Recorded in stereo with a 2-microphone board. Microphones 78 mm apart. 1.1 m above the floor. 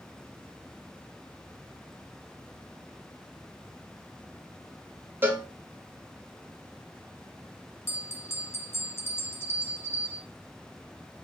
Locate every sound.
5.2 s a cowbell: 25° right (ahead or behind), 1.5 m
7.9 s a bell: 30° left (ahead or behind), 0.8 m